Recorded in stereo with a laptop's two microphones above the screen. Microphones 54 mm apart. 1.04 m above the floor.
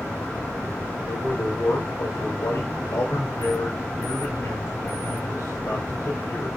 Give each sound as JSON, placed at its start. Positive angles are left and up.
{"t": 1.1, "sound": "a man speaking", "side_deg": 80, "distance_m": 4.5}